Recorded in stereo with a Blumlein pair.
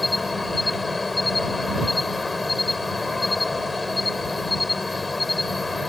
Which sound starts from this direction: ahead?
An insect, at 0.0 s.